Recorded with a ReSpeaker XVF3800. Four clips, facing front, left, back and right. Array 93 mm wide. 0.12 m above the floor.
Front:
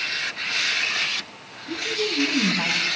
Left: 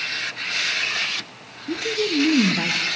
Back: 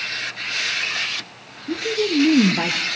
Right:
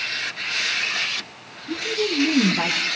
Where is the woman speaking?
150° left, 2 m; by 2.9 s 170° right, 3 m.